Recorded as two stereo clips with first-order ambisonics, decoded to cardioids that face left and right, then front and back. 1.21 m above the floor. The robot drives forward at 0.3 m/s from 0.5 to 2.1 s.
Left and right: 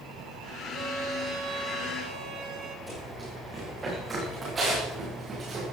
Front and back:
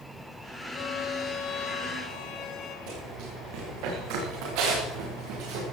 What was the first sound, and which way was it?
A violin, 45° right.